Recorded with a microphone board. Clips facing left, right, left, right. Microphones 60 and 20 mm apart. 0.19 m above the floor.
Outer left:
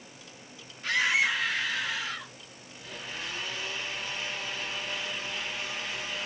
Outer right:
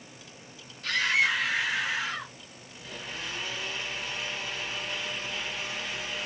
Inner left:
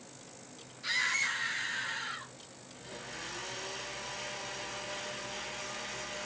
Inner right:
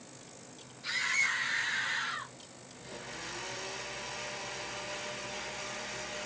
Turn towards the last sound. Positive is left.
turn(degrees=0)  # may be behind; listen again after turning